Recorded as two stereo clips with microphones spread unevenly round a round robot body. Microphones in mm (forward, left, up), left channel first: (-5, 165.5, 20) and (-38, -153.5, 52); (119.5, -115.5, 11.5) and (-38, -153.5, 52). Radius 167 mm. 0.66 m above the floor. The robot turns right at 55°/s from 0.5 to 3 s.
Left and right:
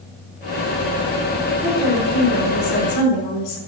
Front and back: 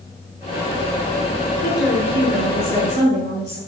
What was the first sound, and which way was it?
A woman speaking, straight ahead.